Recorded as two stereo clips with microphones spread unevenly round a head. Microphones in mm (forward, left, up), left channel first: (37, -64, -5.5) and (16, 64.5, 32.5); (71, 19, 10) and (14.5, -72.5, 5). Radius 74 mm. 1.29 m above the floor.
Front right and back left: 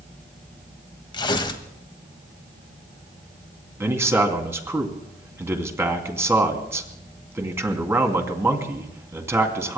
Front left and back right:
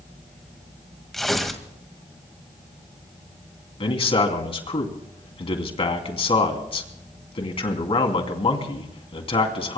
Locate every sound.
1.1 s tearing paper: 30° right, 1.8 m
3.8 s a man speaking: 25° left, 3 m